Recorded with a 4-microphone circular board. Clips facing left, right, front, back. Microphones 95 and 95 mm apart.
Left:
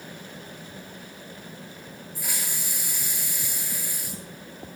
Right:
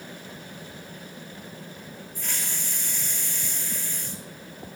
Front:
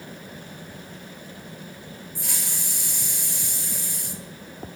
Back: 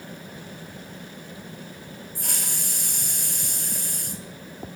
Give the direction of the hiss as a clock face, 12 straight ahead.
6 o'clock.